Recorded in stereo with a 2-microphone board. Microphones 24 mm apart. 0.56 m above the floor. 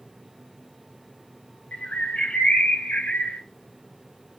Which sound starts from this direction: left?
A bird, at 1.7 s.